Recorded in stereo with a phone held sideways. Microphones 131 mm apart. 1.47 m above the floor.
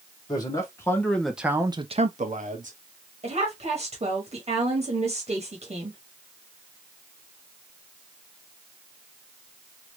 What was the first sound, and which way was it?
A man speaking, 30° left (ahead or behind).